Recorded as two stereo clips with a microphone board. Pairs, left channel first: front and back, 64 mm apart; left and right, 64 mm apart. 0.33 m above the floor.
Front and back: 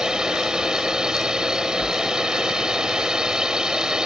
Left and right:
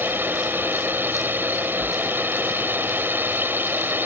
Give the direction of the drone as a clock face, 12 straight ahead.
4 o'clock.